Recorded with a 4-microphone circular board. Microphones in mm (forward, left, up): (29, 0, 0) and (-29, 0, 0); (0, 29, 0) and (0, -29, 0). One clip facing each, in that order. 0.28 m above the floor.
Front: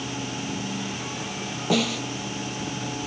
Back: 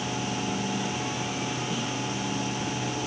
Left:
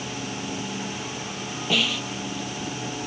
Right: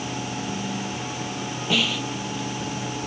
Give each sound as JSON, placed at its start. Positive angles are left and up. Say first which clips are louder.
{"t": 1.7, "sound": "a snare drum", "louder": "front 6 dB, right 1 dB", "azimuth_deg": 0}